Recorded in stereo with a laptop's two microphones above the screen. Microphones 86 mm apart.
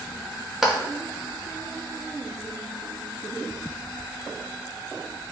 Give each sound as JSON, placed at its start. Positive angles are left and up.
{"t": 0.6, "sound": "a clap", "side_deg": -5, "distance_m": 1.2}